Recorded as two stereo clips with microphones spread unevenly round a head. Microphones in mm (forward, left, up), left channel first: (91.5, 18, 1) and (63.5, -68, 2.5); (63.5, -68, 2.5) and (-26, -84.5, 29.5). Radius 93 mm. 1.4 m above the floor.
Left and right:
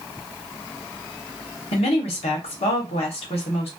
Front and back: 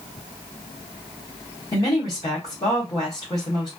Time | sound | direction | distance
1.7 | a woman speaking | 70° left | 1.0 m